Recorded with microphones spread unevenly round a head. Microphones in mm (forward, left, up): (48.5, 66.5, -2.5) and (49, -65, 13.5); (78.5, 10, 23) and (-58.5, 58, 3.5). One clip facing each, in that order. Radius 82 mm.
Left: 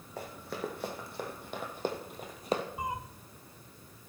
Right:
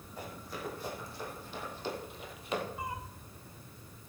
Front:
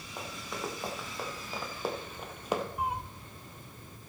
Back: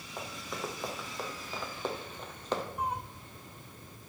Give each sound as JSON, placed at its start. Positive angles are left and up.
{"t": 0.2, "sound": "running footsteps", "azimuth_deg": 70, "distance_m": 3.5}
{"t": 2.8, "sound": "a cat meowing", "azimuth_deg": 40, "distance_m": 0.6}